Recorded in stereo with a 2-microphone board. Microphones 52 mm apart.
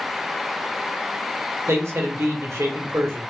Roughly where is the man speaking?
Right.